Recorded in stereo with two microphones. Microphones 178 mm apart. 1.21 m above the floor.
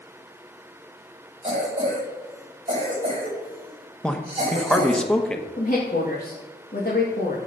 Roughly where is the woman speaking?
Left.